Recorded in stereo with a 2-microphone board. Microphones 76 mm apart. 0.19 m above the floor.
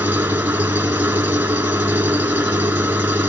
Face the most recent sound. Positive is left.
turn(degrees=-25)  # may be behind; listen again after turning